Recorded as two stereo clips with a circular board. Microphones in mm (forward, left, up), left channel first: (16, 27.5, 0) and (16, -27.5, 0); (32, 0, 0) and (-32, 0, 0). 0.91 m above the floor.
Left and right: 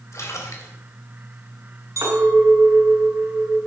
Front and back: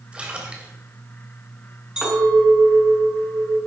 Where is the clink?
105° right, 7 m.